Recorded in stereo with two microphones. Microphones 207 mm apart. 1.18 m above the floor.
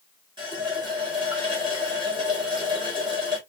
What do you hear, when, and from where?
0.4 s a running tap: 25° right (ahead or behind), 2.0 m